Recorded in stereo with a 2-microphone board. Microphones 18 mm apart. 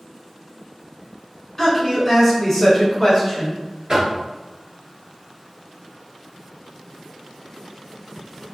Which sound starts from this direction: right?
Knocking, at 3.9 s.